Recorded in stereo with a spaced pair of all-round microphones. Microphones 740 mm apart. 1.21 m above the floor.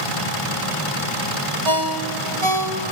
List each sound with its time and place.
1.6 s a ringtone: 35° right (ahead or behind), 2.5 m